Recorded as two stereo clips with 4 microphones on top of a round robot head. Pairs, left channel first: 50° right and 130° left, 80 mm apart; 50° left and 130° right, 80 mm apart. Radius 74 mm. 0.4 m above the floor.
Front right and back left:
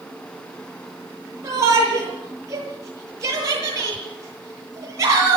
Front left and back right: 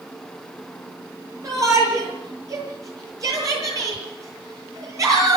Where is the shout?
Straight behind, 10 m.